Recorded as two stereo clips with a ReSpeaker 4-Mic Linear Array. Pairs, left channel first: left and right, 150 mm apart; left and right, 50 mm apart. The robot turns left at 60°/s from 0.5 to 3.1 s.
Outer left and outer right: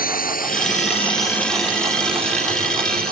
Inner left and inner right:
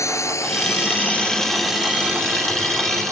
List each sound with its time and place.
0.0 s a drone: 75° left (ahead or behind); by 3.1 s 80° right